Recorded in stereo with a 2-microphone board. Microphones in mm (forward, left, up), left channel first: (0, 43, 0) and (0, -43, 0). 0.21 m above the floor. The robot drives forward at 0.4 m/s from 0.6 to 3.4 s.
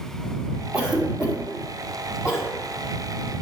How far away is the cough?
About 1.1 m.